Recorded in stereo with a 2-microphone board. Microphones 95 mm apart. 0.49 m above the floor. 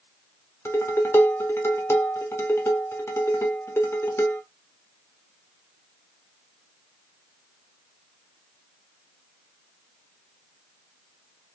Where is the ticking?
I don't hear ticking.